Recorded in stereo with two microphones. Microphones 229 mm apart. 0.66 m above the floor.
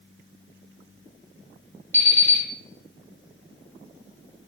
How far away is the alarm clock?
About 1.2 m.